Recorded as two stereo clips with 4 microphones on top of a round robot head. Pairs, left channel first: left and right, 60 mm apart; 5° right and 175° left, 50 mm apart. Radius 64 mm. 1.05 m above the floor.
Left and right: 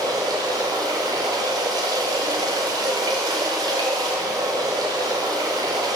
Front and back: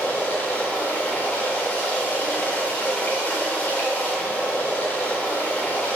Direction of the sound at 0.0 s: 75° right.